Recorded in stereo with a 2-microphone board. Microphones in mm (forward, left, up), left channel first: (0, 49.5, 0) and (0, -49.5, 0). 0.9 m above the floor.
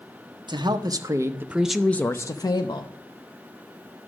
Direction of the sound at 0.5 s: 50° right (ahead or behind).